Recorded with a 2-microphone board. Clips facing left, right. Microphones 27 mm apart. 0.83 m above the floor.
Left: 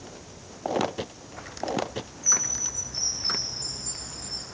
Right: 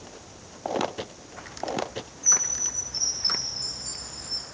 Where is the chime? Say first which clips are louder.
Right 1 dB; 35° right (ahead or behind), 10 m.